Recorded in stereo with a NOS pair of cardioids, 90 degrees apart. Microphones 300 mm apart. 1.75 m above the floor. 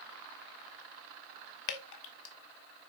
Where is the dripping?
65° left, 1.6 m.